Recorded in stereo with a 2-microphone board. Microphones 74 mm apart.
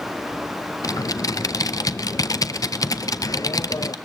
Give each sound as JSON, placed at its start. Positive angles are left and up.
{"t": 0.8, "sound": "typing on a keyboard", "side_deg": 55, "distance_m": 0.8}